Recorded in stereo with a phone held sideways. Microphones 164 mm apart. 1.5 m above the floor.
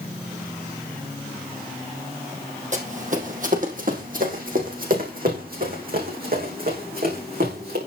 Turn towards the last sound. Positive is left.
turn(degrees=-65)  # may be behind; listen again after turning